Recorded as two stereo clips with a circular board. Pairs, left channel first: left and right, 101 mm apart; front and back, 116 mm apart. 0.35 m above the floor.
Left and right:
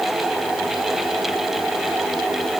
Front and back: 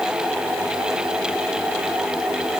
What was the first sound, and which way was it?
Only background noise.